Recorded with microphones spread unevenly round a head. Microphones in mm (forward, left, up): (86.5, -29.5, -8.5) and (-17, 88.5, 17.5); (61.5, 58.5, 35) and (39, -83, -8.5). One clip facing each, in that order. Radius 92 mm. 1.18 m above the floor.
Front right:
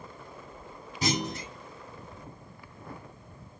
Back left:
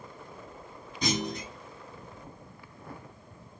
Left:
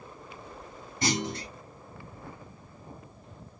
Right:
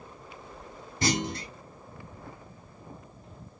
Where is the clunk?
145° right, 1.1 m.